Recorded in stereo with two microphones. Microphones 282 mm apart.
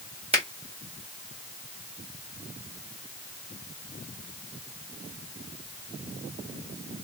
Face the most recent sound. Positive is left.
turn(degrees=-20)  # may be behind; listen again after turning